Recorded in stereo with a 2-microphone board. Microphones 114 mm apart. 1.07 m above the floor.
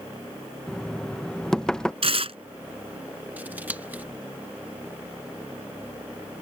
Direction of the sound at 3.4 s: 15° right (ahead or behind).